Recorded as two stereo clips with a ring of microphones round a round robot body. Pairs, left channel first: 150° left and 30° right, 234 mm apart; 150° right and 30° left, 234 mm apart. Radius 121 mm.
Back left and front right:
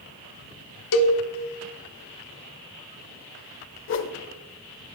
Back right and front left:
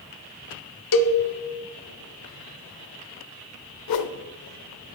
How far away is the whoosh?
About 0.6 m.